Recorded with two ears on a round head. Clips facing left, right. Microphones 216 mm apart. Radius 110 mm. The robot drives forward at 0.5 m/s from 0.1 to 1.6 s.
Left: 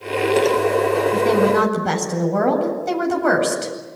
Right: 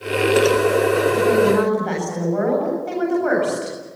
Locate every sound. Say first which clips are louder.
1.1 s a woman speaking: even; 50° left (ahead or behind), 8.5 m